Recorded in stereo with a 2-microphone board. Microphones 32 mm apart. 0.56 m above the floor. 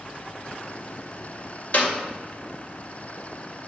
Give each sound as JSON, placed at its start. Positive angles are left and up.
{"t": 1.7, "sound": "a clap", "side_deg": 50, "distance_m": 2.0}